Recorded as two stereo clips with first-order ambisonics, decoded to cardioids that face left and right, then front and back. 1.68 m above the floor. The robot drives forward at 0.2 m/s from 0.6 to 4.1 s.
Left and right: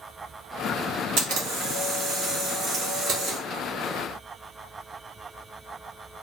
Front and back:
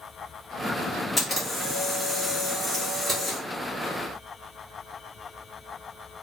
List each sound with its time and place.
1.2 s a camera shutter: 90° right, 1.5 m; by 3.4 s 110° right, 1.6 m